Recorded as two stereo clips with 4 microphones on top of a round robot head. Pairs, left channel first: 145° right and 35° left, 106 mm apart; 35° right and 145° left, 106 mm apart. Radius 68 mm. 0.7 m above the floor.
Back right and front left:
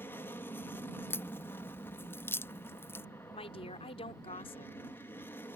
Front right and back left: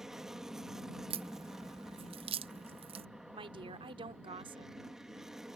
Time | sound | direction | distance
0.0 | an aircraft | 135° right | ?
1.1 | a crack | 150° left | ?
3.3 | a woman speaking | 175° right | ?